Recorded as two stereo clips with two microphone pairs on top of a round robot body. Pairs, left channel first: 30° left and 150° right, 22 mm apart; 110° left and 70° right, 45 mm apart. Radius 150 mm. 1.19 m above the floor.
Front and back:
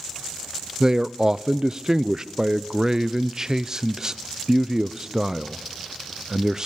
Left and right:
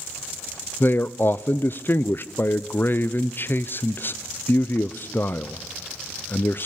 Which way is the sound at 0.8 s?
145° left.